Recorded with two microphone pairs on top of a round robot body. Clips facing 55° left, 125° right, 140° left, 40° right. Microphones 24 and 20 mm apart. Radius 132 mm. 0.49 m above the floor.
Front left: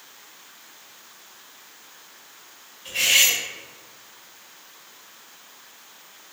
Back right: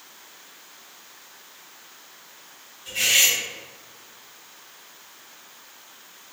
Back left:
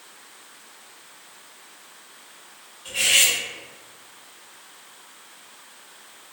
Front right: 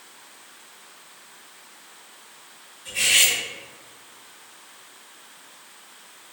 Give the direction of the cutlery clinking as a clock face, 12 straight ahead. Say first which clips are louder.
Front left 1 dB, even; 9 o'clock.